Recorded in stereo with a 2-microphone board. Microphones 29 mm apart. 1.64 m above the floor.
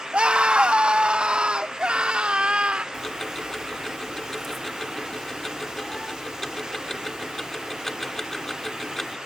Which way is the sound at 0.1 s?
40° right (ahead or behind).